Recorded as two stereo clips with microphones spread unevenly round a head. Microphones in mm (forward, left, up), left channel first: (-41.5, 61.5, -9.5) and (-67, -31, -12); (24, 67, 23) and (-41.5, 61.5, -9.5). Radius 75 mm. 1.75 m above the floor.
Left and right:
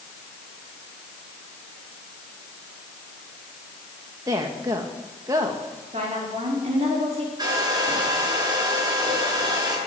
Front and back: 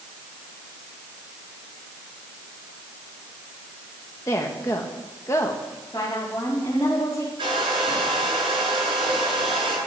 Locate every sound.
4.3 s a woman speaking: 40° right, 1.6 m
5.9 s a woman speaking: 55° right, 4.5 m
7.4 s a hair dryer: 150° right, 7.5 m